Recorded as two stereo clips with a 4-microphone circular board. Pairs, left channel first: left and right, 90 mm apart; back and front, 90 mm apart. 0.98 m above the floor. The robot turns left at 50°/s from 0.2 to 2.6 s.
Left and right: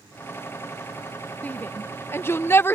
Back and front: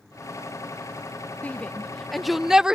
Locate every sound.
1.4 s a shout: 135° left; by 2.8 s 75° left